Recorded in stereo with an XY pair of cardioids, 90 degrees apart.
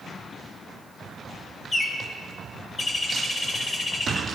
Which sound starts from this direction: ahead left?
A bird, at 1.7 s.